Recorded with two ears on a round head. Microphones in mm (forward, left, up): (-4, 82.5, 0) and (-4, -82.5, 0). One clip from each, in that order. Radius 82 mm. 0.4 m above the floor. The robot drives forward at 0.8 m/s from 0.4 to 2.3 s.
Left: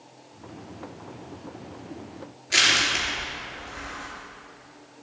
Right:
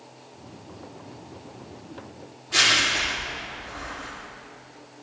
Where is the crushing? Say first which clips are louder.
Even; 60° left (ahead or behind), 3.5 m.